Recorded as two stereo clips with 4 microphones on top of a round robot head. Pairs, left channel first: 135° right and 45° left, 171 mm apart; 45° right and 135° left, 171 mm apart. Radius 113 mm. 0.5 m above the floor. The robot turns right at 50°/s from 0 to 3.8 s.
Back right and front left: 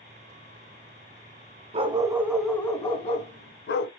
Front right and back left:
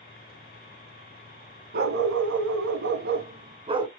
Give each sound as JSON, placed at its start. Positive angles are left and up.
{"t": 1.7, "sound": "a dog barking", "azimuth_deg": 100, "distance_m": 1.8}